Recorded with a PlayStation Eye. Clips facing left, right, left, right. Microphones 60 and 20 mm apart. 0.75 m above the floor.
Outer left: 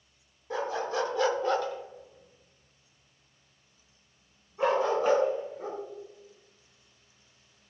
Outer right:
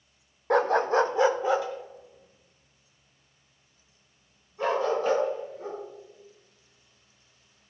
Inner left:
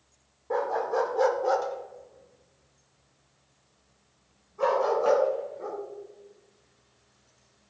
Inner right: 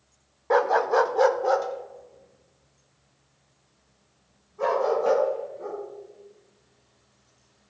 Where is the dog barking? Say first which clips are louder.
Outer right 9 dB, inner right 7 dB; 65° right (ahead or behind), 0.5 m; by 5.8 s 20° left (ahead or behind), 4 m.